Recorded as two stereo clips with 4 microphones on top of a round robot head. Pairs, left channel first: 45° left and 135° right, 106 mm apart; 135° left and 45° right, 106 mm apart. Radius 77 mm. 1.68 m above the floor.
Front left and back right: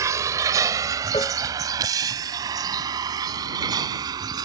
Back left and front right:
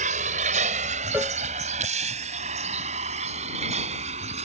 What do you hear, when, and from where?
0.0 s a vehicle: 70° right; by 4.5 s 75° right
1.1 s a cowbell: 15° left